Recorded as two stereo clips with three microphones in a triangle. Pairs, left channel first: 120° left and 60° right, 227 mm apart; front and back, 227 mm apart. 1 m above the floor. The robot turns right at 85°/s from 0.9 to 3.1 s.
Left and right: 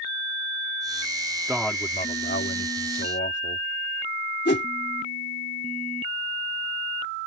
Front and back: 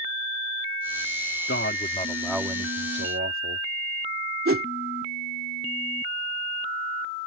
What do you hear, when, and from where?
1.5 s a man speaking: 20° left; by 3.7 s 155° left
4.5 s a whoosh: 160° left